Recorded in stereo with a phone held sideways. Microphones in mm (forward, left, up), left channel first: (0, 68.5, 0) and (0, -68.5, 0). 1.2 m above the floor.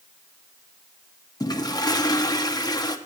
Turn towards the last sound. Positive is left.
turn(degrees=25)  # may be behind; listen again after turning